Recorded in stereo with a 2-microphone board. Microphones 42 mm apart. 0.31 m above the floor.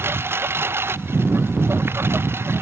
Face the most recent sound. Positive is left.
turn(degrees=-80)